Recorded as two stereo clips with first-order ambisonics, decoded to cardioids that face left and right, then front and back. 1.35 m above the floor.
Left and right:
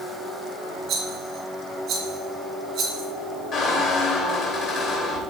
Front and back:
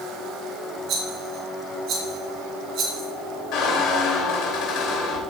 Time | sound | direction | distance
0.9 | a rattle | 135° right | 2.5 m
3.5 | a squeak | 35° left | 3 m